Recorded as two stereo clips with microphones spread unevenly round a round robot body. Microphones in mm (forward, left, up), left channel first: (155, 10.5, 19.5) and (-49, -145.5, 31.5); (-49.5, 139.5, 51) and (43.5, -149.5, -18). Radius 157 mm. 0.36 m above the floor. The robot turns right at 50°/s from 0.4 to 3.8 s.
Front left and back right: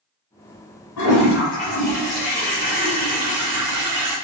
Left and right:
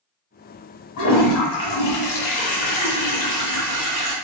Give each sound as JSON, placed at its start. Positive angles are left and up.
{"t": 1.0, "sound": "a toilet flushing", "azimuth_deg": 70, "distance_m": 1.6}